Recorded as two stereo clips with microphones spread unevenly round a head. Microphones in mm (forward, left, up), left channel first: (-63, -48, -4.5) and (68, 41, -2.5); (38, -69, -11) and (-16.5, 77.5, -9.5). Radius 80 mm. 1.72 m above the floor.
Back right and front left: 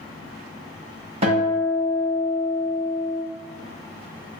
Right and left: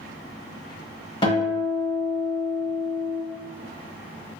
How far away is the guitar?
About 1.2 m.